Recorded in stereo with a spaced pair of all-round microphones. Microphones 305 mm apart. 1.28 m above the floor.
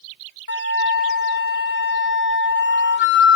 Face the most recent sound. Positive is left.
turn(degrees=35)  # may be behind; listen again after turning